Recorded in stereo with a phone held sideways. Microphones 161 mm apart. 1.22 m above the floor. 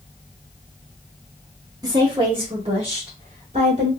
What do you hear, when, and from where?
1.8 s a woman speaking: 20° right (ahead or behind), 0.9 m; by 3.9 s 40° right (ahead or behind), 2.5 m